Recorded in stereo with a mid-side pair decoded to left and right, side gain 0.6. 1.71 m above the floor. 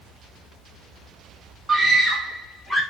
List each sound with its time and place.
1.7 s a scream: 20° right, 0.5 m; by 2.8 s straight ahead, 1.6 m